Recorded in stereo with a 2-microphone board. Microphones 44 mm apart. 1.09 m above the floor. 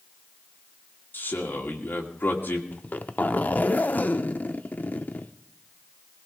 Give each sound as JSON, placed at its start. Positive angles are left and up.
{"t": 1.1, "sound": "a man speaking", "side_deg": 45, "distance_m": 2.0}
{"t": 2.7, "sound": "a zipper", "side_deg": 40, "distance_m": 0.6}